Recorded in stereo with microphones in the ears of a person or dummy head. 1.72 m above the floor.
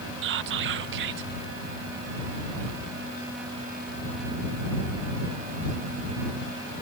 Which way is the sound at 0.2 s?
60° right (ahead or behind).